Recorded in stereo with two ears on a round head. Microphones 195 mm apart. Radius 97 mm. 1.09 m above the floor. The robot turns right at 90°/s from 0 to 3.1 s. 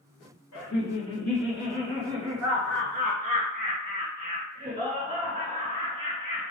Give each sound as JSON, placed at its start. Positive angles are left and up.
{"t": 0.5, "sound": "laughter", "azimuth_deg": 105, "distance_m": 1.9}